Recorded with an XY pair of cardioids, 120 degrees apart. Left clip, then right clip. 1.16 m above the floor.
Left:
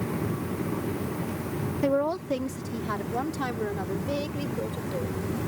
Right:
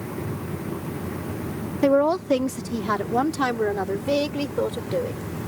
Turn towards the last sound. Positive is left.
turn(degrees=-50)